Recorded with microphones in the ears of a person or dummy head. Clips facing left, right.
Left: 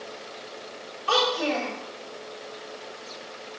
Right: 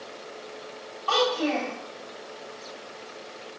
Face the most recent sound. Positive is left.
turn(degrees=20)  # may be behind; listen again after turning